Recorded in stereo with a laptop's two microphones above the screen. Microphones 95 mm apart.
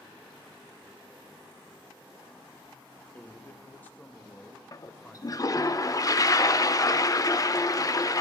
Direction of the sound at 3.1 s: 15° left (ahead or behind).